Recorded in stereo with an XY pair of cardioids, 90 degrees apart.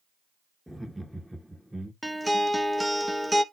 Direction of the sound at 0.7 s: 5° left.